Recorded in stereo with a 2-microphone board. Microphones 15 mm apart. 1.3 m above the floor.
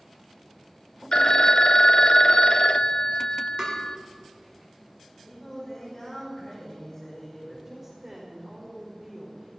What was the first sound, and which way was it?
A phone ringing, 50° left (ahead or behind).